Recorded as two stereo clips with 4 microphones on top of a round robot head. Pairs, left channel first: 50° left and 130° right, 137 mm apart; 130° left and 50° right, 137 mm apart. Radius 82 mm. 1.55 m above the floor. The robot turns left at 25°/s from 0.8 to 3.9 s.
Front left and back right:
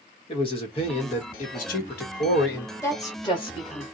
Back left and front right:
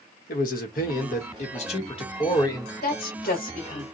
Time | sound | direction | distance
0.3 | a man speaking | 105° left | 1.0 m
2.8 | a woman speaking | 125° left | 1.2 m